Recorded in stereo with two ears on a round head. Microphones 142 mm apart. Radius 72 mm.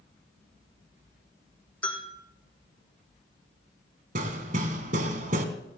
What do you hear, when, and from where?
1.8 s a bell: 10° left (ahead or behind), 4 m
4.2 s hammering: 50° right (ahead or behind), 1.5 m